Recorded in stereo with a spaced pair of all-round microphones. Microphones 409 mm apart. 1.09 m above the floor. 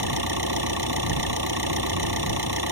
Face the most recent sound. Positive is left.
turn(degrees=-70)  # may be behind; listen again after turning